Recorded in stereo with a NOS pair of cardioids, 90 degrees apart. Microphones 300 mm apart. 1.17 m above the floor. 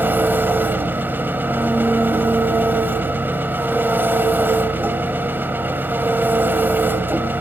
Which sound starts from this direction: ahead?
An engine running, at 0.0 s.